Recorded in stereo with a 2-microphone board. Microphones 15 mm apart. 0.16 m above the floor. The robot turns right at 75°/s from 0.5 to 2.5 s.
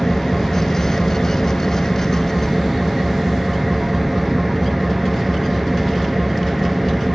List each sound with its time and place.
0.0 s an engine running: 35° left, 1.1 m; by 7.2 s 175° right, 1.1 m